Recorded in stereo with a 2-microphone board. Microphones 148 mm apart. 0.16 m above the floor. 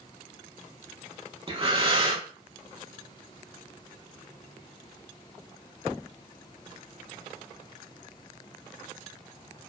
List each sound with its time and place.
1.5 s breathing: 35° right (ahead or behind), 0.5 m